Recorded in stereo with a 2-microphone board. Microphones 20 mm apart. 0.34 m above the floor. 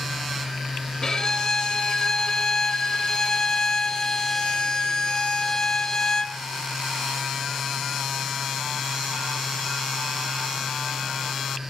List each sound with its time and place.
1.0 s a violin: 30° left (ahead or behind), 1.8 m